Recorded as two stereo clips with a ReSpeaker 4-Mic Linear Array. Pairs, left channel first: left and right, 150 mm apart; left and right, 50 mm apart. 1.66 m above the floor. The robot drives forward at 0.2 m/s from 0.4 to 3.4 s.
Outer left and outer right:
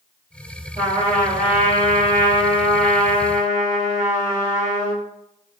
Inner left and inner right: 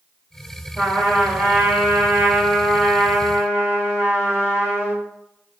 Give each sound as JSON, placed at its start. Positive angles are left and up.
{"t": 0.8, "sound": "a trumpet", "side_deg": -50, "distance_m": 1.2}